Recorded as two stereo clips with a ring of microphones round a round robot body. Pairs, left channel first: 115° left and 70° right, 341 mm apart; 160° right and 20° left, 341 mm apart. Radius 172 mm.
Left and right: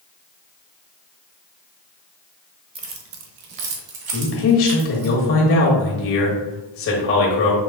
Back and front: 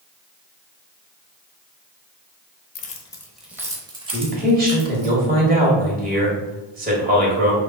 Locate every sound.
2.8 s keys jangling: 125° right, 0.6 m; by 5.1 s 45° right, 1.9 m
4.1 s a man speaking: 80° left, 1.3 m